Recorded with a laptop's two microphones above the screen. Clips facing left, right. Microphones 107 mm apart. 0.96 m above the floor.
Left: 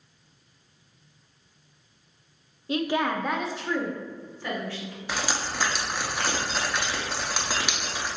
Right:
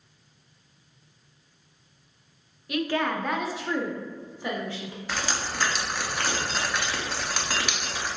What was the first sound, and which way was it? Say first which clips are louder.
A woman speaking: left 1 dB; 30° left (ahead or behind).